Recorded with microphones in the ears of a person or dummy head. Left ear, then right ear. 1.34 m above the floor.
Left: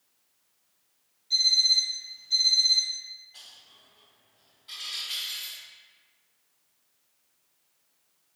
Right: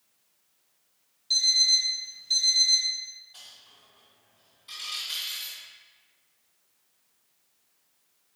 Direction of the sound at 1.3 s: 45° right (ahead or behind).